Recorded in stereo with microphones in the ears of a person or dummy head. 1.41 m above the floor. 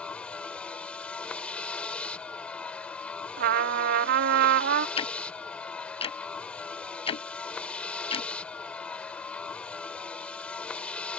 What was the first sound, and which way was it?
A vehicle, 5° left (ahead or behind).